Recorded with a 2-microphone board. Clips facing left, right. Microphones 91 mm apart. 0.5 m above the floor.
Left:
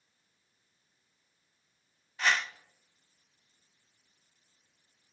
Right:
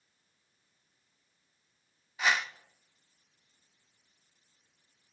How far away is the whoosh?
About 0.6 m.